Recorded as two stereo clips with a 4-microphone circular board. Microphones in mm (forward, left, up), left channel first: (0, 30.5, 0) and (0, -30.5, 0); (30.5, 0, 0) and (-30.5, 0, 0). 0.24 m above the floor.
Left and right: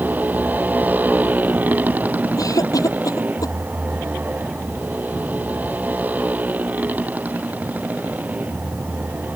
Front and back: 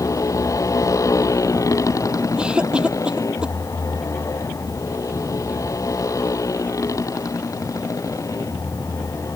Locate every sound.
0.0 s a motorcycle: 30° right; by 9.4 s 25° right
2.4 s a cough: 105° left